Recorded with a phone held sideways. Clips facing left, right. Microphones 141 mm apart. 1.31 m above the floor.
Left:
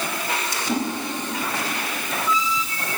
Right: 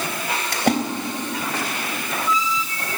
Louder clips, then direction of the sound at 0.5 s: Right 7 dB; 65° right (ahead or behind).